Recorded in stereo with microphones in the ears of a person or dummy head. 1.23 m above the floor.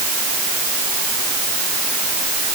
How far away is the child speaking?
No child speaking in this recording.